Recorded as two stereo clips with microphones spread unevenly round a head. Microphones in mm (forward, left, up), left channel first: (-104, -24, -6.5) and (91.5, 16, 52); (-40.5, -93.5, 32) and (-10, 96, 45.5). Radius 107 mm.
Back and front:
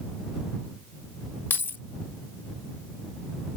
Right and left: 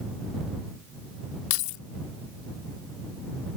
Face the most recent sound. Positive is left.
turn(degrees=-90)